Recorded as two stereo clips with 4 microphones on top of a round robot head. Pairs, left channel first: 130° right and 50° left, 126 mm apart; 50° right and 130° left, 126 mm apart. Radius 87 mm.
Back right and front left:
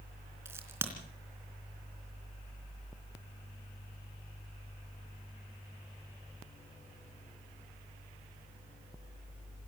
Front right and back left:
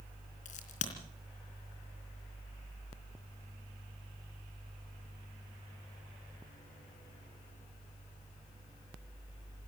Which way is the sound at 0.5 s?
20° right.